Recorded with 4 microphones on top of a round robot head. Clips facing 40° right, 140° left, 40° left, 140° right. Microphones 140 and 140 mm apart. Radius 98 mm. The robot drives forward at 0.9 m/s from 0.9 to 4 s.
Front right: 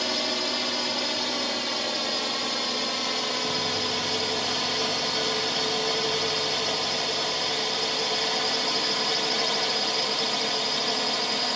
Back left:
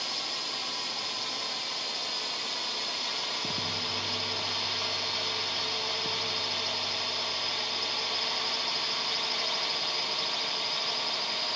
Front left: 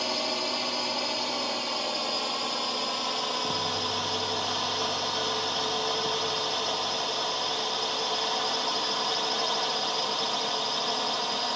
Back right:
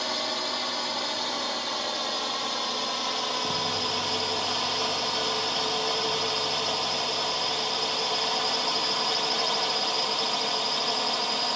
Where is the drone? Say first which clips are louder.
Front right 11 dB, front left 1 dB; 35° right; by 11.6 s 55° right.